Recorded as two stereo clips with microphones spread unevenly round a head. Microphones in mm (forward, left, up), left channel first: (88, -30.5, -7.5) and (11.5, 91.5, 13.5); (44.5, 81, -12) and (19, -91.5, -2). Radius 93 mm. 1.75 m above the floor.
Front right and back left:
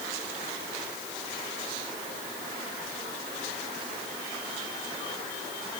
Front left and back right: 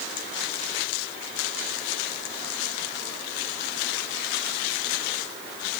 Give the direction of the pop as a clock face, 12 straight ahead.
No pop in this recording.